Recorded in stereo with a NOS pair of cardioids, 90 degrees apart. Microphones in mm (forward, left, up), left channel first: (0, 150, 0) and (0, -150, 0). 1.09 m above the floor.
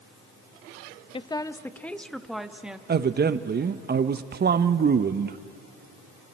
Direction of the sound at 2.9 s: 35° right.